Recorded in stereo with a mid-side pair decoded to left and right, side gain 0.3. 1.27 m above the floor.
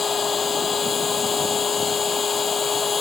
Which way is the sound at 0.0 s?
55° left.